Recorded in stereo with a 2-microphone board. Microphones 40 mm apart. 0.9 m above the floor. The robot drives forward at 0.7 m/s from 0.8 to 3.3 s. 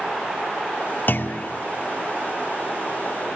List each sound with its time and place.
1.1 s a clunk: 50° left (ahead or behind), 0.6 m; by 1.5 s 45° left (ahead or behind), 0.6 m